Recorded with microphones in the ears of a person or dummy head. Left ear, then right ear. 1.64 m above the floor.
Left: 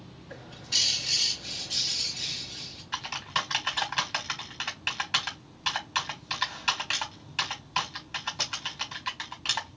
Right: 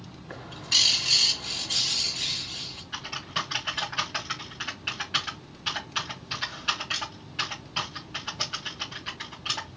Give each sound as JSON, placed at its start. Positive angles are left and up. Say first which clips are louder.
{"t": 0.3, "sound": "a bird", "louder": "right 4 dB", "side_deg": -35, "distance_m": 1.8}
{"t": 2.9, "sound": "typing on a keyboard", "louder": "left 2 dB", "side_deg": 30, "distance_m": 1.6}